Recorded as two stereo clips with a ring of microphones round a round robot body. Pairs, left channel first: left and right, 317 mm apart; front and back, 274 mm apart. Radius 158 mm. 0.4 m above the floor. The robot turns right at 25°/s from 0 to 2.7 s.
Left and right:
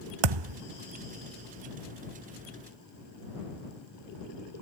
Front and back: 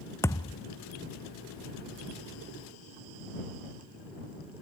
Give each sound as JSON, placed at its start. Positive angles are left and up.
{"t": 0.2, "sound": "a thud", "azimuth_deg": -85}